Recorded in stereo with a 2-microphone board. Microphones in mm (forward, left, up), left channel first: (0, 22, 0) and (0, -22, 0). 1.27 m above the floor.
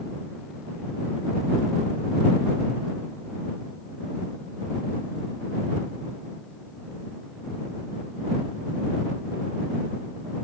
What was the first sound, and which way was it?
Only background noise.